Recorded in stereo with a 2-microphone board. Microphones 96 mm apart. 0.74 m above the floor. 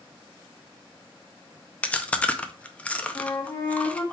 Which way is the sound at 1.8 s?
15° left (ahead or behind).